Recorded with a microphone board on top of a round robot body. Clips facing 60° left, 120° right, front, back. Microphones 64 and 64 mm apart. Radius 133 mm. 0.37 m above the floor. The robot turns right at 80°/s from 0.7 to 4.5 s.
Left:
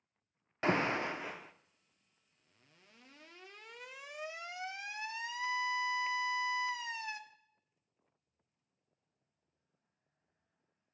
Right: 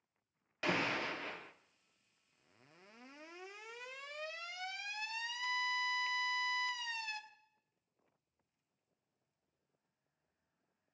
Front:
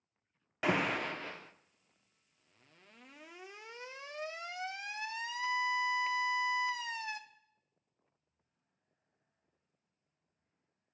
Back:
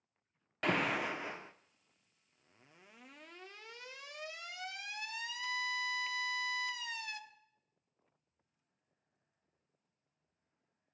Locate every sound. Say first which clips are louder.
0.6 s an alarm: left 4 dB, front 1 dB; 80° left, 0.8 m; by 7.2 s 20° left, 0.8 m